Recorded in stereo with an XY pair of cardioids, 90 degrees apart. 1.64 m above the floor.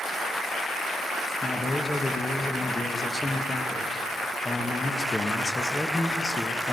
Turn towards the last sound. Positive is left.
turn(degrees=20)